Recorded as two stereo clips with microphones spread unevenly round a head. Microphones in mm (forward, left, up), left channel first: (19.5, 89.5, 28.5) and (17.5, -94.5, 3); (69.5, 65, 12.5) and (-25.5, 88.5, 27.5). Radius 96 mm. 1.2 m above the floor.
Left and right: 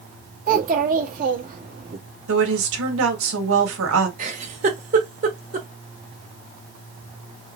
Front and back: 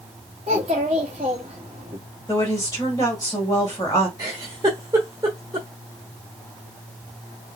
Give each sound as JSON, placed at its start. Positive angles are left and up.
{"t": 0.5, "sound": "a child speaking", "azimuth_deg": -140, "distance_m": 1.2}
{"t": 2.3, "sound": "a woman speaking", "azimuth_deg": -85, "distance_m": 1.6}
{"t": 4.2, "sound": "a giggle", "azimuth_deg": -140, "distance_m": 1.2}